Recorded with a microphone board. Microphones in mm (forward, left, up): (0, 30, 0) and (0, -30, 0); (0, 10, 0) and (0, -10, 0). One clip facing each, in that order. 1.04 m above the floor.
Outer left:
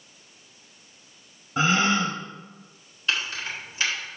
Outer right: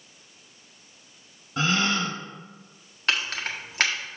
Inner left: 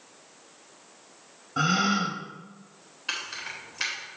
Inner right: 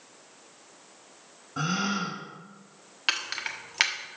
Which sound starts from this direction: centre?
A gasp, at 1.6 s.